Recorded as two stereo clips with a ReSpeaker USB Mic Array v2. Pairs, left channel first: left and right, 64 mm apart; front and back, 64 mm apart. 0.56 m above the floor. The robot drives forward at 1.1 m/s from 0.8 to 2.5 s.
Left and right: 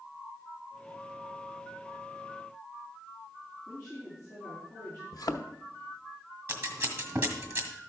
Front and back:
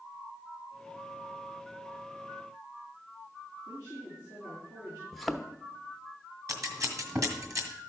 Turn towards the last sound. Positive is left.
turn(degrees=-145)